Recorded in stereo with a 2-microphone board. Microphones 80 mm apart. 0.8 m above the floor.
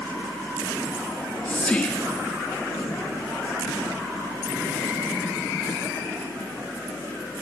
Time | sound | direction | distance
1.1 | whispering | 20° left (ahead or behind) | 1.5 m